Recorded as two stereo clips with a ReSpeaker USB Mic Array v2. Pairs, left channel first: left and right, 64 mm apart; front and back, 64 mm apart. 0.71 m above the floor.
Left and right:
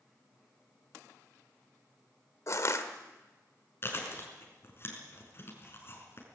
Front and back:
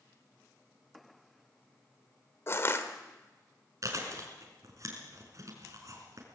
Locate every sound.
2.5 s crushing: 50° left, 1.8 m
3.8 s chewing: 140° left, 5 m